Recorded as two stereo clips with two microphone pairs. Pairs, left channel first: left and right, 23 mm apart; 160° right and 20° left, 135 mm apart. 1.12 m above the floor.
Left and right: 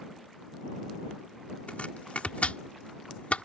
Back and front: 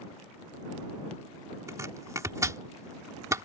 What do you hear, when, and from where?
1.7 s chopping: 80° left